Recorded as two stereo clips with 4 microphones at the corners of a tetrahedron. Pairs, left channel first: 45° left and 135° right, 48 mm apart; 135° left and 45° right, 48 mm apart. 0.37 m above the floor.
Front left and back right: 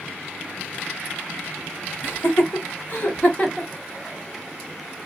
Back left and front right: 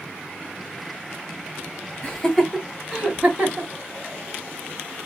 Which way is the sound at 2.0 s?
50° left.